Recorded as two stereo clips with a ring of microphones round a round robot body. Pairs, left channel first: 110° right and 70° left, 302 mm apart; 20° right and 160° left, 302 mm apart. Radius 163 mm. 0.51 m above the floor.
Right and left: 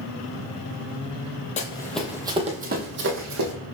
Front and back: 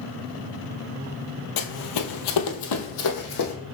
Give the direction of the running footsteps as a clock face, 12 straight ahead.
2 o'clock.